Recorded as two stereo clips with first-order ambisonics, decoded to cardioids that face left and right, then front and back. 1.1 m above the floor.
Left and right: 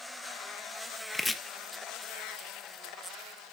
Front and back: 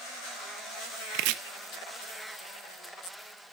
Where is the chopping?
170° left, 0.9 m.